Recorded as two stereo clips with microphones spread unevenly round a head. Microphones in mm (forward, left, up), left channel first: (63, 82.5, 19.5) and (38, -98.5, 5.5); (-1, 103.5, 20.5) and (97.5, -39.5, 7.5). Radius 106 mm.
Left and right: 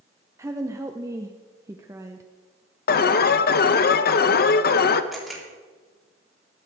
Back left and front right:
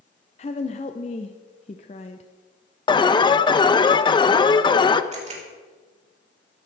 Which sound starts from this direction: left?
An alarm, at 2.9 s.